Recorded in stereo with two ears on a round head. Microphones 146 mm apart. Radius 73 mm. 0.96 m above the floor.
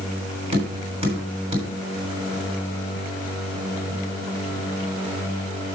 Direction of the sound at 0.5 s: 35° right (ahead or behind).